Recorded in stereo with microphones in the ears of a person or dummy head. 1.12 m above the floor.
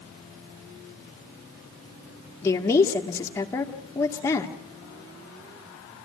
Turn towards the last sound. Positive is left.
turn(degrees=15)  # may be behind; listen again after turning